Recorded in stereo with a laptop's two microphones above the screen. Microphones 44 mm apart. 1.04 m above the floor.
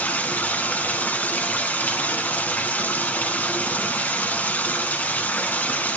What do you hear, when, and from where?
0.0 s running water: 35° left (ahead or behind), 1.7 m